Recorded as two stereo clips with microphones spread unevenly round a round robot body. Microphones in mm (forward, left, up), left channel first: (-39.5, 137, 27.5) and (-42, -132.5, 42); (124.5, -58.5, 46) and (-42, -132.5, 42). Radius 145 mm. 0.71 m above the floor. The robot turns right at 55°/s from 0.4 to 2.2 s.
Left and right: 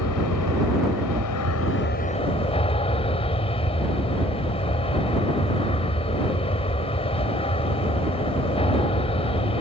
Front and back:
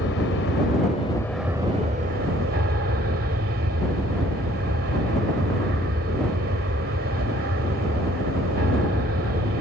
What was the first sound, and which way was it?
An aircraft, 60° left.